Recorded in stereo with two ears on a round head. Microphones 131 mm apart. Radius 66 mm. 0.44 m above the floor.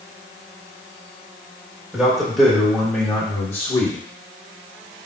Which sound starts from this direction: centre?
A man speaking, at 1.9 s.